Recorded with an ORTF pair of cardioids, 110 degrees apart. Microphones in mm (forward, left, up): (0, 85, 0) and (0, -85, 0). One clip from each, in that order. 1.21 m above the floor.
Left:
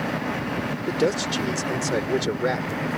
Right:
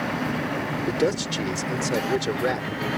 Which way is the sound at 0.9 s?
Straight ahead.